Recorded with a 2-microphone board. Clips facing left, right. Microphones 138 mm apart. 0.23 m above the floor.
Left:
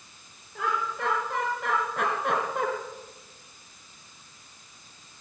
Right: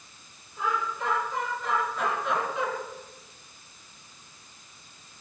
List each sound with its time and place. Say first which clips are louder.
0.6 s laughter: even; 75° left (ahead or behind), 4.5 m; by 2.7 s 55° left (ahead or behind), 2.5 m